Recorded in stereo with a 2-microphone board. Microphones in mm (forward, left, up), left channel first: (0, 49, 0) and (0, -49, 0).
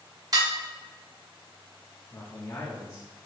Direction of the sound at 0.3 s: 40° right (ahead or behind).